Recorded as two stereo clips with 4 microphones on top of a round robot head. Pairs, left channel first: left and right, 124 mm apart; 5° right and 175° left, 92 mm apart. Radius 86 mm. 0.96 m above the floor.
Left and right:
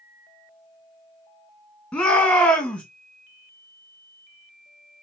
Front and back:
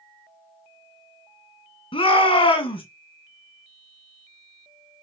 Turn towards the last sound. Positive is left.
turn(degrees=10)